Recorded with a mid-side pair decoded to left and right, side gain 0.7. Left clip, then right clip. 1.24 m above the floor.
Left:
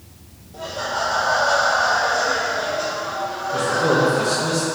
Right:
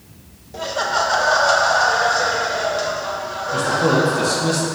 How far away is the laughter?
About 0.9 m.